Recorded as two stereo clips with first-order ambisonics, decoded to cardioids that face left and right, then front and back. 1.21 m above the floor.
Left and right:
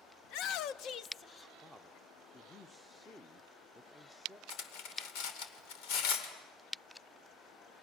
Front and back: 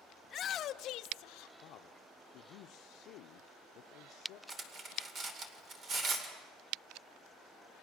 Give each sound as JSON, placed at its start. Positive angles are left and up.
{"t": 0.2, "sound": "a shout", "azimuth_deg": 65, "distance_m": 0.9}
{"t": 1.6, "sound": "a man speaking", "azimuth_deg": 5, "distance_m": 0.7}
{"t": 4.5, "sound": "cutlery clinking", "azimuth_deg": 115, "distance_m": 2.5}